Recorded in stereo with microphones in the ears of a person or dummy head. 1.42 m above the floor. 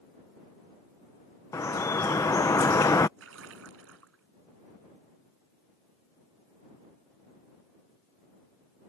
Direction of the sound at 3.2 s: 85° right.